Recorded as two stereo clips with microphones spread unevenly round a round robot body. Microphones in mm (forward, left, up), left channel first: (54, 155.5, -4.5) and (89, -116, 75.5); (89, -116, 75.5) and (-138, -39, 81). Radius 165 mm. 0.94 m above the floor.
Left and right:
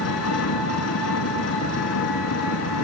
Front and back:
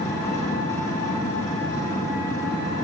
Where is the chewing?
I don't hear chewing.